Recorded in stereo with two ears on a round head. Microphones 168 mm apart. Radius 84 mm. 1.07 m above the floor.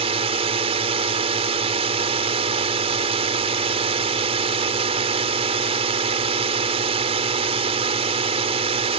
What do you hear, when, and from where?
0.0 s a drone: 35° right (ahead or behind)